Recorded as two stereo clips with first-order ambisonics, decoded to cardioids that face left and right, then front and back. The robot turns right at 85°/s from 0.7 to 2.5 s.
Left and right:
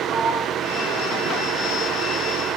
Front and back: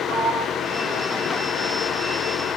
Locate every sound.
0.1 s a sliding door: 135° right, 4 m; by 1.8 s 40° right, 4 m